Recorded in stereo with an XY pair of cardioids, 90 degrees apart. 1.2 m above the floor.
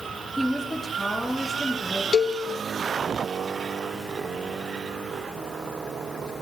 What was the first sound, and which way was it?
A woman speaking, 10° left.